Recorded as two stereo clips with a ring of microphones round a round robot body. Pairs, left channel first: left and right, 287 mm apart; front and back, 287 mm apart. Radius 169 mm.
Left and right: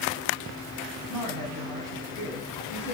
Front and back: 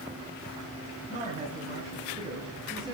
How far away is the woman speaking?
About 3.5 m.